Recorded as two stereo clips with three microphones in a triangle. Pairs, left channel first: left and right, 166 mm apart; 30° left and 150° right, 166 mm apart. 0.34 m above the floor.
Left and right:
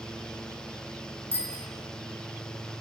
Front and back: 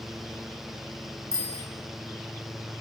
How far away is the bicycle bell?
About 3.5 m.